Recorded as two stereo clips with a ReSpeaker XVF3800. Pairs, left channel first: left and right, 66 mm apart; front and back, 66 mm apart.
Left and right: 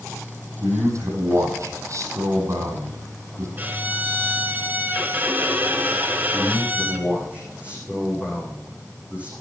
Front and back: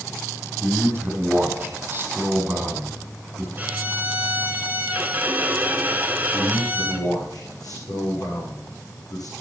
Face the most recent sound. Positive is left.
turn(degrees=-20)